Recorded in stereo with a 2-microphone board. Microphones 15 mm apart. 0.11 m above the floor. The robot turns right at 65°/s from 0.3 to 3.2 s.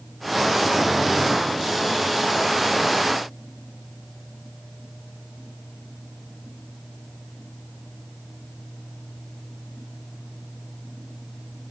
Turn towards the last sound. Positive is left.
No sound to turn to.